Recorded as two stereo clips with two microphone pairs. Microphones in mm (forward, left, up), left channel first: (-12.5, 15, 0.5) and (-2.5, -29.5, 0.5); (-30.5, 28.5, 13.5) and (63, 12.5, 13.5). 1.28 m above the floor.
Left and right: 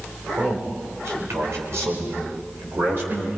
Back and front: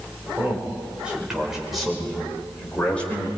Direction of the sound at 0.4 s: 80° right.